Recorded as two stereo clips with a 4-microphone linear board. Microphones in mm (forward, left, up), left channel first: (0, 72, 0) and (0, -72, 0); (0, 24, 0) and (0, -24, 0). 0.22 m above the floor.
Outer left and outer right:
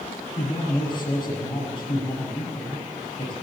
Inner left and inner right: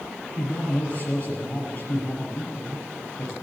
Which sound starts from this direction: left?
A man speaking, at 0.4 s.